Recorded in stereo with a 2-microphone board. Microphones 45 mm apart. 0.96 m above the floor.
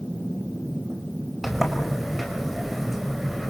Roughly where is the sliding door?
Centre.